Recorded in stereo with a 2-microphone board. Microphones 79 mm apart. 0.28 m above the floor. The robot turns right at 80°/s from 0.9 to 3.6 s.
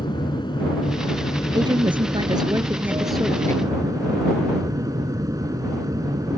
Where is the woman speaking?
125° right; by 3.7 s 40° left.